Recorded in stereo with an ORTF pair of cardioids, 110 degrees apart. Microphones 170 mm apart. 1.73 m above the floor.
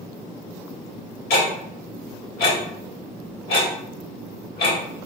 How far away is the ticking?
About 1.3 m.